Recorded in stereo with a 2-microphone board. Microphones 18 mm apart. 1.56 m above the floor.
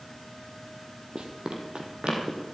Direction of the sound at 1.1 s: 50° right (ahead or behind).